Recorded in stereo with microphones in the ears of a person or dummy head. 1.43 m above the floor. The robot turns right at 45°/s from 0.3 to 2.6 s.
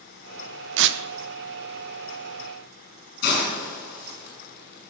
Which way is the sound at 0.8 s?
75° right (ahead or behind).